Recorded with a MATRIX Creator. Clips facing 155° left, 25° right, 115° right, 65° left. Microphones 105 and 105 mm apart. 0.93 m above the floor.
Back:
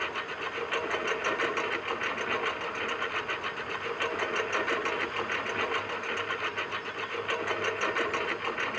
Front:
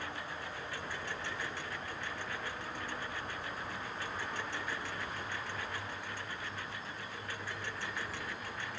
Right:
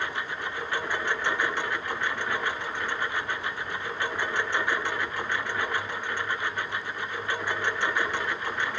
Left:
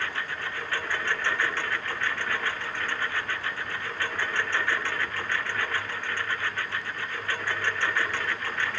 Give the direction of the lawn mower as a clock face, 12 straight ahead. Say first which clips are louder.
Back 7 dB, right 1 dB; 6 o'clock.